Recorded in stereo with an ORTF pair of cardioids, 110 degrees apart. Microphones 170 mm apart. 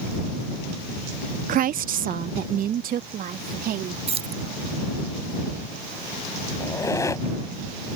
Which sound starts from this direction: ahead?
A squeak, at 6.6 s.